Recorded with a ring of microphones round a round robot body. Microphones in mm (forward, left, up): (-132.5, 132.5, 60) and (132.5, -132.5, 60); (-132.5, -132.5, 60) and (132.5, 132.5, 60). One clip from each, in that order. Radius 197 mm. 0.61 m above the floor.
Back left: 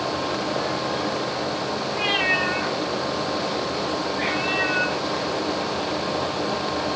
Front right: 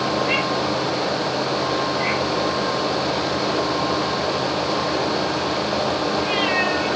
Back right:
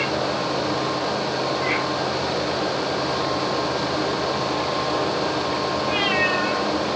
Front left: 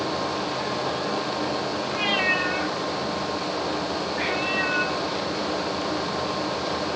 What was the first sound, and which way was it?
Only background noise.